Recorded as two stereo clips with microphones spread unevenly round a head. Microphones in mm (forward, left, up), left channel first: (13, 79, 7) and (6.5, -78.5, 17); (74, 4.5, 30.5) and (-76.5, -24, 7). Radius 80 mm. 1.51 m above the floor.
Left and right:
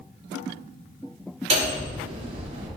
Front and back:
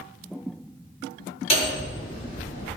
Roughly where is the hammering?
Ahead right.